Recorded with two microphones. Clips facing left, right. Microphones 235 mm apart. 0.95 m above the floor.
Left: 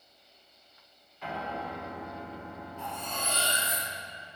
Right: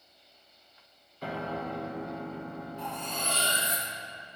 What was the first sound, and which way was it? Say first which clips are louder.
A piano: right 3 dB; 40° right (ahead or behind).